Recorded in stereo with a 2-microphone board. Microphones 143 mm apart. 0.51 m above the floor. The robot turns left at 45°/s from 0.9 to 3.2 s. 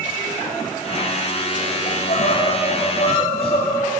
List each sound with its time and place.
1.9 s crying: 105° left, 6.5 m; by 3.9 s 45° left, 6.5 m